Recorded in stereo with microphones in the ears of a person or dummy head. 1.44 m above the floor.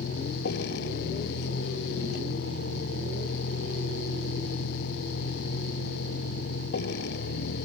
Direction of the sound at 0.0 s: 65° left (ahead or behind).